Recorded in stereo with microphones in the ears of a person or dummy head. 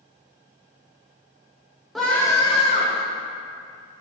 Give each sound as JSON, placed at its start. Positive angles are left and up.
{"t": 1.9, "sound": "a scream", "side_deg": 0, "distance_m": 1.5}